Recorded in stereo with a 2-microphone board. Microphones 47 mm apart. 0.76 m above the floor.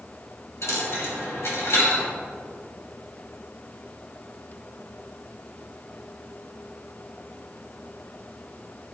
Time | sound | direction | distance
0.6 | a dropped coin | 75° left (ahead or behind) | 2.5 m